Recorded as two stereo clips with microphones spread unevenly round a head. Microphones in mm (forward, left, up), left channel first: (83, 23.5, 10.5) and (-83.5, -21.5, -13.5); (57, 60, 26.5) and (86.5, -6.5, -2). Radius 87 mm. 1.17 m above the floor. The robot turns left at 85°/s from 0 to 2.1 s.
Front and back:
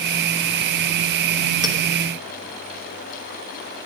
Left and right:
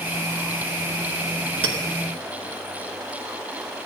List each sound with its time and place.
1.6 s a clink: 95° right, 1.2 m; by 1.8 s 105° right, 1.2 m